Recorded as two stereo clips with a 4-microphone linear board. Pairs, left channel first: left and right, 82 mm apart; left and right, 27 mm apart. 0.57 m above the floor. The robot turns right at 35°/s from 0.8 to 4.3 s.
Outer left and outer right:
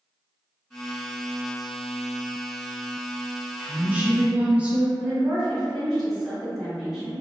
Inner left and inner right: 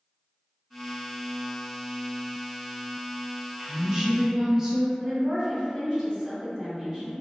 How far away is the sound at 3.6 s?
About 0.6 m.